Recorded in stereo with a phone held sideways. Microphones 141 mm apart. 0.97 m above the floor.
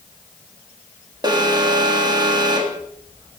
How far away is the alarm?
About 1.9 m.